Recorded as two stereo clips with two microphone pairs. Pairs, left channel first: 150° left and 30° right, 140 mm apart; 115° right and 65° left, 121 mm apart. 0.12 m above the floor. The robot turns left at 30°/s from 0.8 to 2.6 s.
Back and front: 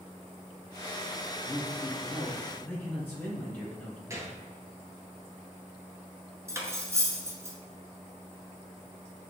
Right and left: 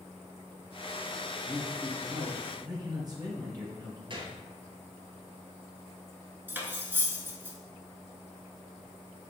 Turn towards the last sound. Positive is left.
turn(degrees=10)